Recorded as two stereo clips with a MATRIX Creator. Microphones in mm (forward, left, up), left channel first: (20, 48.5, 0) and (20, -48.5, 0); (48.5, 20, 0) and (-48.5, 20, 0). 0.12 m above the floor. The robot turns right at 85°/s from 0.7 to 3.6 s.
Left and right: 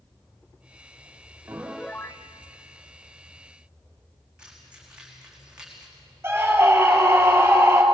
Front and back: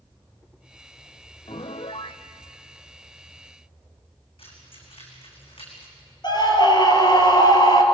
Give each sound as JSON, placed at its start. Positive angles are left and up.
{"t": 1.5, "sound": "a piano", "azimuth_deg": -25, "distance_m": 0.9}
{"t": 4.4, "sound": "keys jangling", "azimuth_deg": -10, "distance_m": 5.5}
{"t": 6.2, "sound": "a scream", "azimuth_deg": -30, "distance_m": 3.5}